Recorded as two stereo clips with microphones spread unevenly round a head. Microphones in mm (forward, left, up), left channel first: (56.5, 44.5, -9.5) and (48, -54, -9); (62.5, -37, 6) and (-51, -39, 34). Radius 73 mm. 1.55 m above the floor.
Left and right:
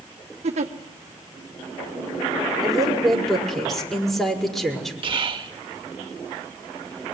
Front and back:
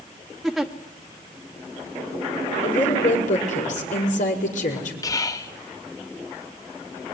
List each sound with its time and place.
0.4 s a giggle: 90° right, 1.4 m
2.6 s a woman speaking: straight ahead, 5 m
5.0 s whispering: 60° right, 1.9 m